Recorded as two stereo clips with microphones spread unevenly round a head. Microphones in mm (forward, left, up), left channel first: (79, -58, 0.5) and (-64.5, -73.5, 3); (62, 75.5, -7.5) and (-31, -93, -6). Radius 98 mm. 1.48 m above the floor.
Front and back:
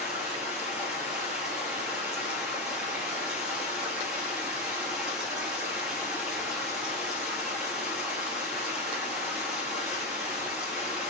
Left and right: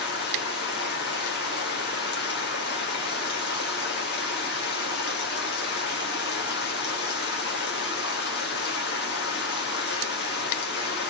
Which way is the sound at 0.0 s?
100° left.